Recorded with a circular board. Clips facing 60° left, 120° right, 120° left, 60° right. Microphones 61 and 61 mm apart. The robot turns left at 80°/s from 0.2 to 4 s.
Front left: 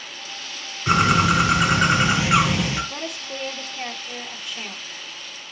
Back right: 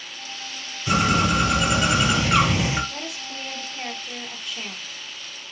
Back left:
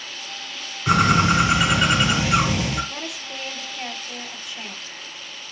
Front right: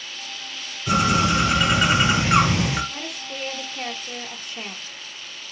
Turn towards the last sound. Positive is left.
turn(degrees=-30)